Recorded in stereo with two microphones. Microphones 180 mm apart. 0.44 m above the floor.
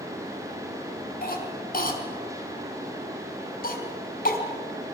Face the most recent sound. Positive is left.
turn(degrees=55)  # may be behind; listen again after turning